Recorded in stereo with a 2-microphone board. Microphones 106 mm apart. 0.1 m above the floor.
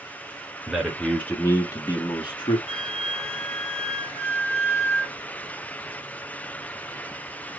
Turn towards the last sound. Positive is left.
turn(degrees=85)